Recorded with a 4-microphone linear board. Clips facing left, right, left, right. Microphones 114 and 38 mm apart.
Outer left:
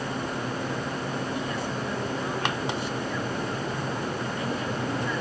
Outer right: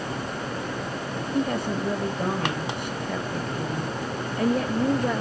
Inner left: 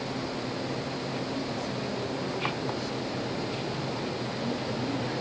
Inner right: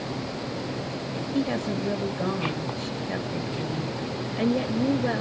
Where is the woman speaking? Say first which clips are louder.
Outer right 5 dB, inner right 6 dB; 55° right (ahead or behind), 2.5 m.